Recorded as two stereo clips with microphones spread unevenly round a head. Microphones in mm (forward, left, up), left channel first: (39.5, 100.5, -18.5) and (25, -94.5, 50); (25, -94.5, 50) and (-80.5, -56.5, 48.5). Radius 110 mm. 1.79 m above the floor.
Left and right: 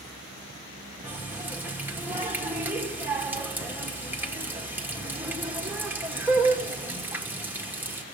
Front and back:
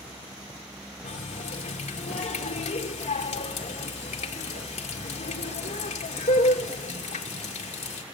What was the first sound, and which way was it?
A running tap, 25° right.